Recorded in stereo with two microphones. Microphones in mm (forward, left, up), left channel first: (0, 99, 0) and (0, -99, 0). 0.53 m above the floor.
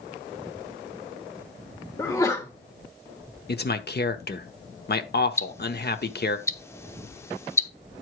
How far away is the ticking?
About 0.7 m.